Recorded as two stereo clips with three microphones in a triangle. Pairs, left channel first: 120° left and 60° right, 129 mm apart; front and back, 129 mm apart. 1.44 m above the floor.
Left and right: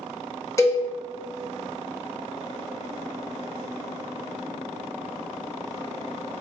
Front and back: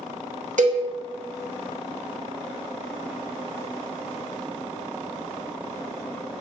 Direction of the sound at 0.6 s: 175° right.